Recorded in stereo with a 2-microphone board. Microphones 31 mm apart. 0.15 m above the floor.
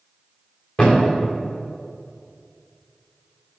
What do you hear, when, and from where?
0.8 s a thud: 35° left (ahead or behind), 3 m